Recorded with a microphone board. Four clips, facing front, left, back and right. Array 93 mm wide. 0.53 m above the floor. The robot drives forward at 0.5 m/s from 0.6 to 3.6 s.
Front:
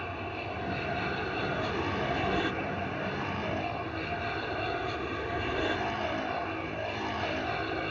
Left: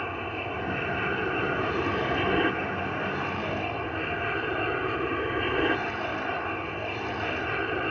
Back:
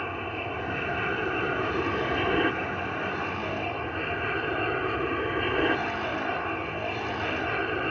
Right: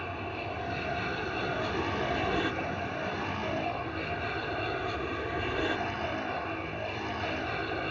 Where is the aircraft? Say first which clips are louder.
Left 4 dB, back 4 dB; 130° left; by 7.9 s 135° left.